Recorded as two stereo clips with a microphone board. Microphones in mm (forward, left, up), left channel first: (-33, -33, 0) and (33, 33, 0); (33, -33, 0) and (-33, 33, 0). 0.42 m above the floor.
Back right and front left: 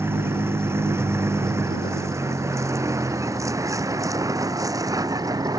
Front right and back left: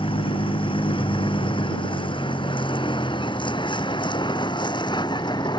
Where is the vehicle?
20° right; by 5.6 s 5° right.